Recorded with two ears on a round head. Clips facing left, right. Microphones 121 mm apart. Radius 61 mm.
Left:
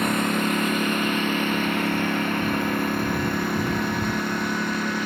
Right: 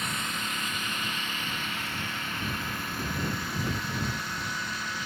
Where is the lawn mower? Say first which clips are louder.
Left 13 dB; 50° left (ahead or behind).